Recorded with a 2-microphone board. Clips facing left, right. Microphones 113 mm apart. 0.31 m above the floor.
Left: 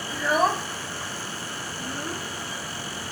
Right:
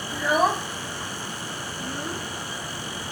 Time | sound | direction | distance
0.1 | a child speaking | 5° right (ahead or behind) | ?